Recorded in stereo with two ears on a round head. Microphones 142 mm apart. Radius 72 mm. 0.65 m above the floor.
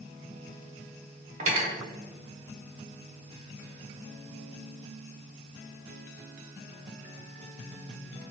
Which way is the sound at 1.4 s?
50° right (ahead or behind).